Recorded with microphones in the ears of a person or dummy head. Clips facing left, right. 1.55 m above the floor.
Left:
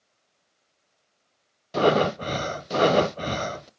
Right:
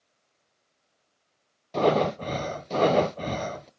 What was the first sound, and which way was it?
Breathing, 10° left (ahead or behind).